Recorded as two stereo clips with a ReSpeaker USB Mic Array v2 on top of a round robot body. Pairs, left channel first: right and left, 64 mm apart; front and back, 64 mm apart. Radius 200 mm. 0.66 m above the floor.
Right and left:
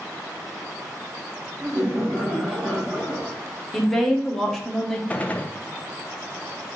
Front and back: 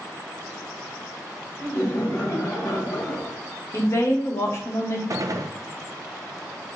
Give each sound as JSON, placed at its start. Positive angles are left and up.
{"t": 1.6, "sound": "laughter", "azimuth_deg": 45, "distance_m": 2.0}
{"t": 3.7, "sound": "a woman speaking", "azimuth_deg": -5, "distance_m": 1.3}
{"t": 5.1, "sound": "a gunshot", "azimuth_deg": -155, "distance_m": 0.6}